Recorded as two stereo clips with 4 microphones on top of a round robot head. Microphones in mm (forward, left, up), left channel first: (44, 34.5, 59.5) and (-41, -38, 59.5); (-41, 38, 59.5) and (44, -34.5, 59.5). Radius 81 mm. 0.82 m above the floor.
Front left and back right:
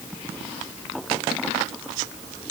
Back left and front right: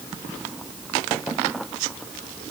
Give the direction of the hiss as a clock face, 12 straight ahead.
I don't hear a hiss.